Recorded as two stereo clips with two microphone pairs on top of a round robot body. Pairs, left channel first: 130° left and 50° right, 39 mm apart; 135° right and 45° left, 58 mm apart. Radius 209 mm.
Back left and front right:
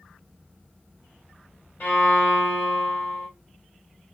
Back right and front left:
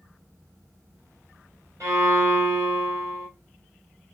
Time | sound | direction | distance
1.8 | a violin | 90° left | 1.5 m